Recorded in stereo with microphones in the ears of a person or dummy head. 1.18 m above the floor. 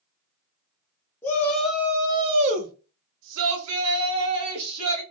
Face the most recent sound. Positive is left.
turn(degrees=-85)